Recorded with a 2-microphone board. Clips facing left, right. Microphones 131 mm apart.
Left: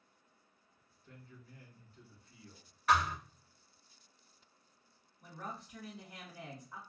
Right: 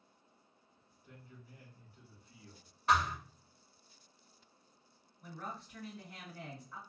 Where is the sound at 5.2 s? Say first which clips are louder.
Even; 15° left (ahead or behind), 1.7 m.